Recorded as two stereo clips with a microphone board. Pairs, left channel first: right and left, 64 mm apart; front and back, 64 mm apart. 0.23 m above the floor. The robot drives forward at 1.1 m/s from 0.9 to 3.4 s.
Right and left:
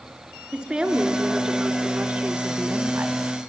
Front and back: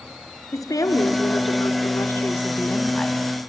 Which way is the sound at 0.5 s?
15° left.